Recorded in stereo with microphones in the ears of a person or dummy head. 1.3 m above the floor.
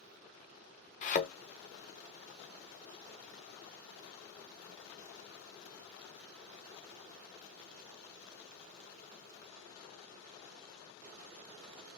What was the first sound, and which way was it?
A thud, 40° left (ahead or behind).